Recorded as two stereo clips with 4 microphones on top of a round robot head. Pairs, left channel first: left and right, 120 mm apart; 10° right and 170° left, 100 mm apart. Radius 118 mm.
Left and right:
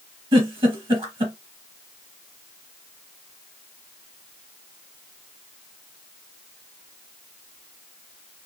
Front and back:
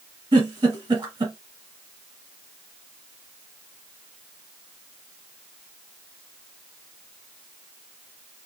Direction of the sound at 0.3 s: 135° right.